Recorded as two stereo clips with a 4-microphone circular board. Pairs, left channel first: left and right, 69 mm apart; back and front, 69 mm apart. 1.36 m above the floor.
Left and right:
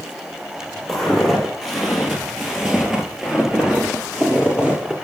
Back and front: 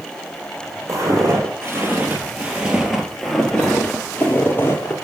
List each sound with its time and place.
0.9 s footsteps: straight ahead, 1.8 m; by 5.0 s 160° right, 1.6 m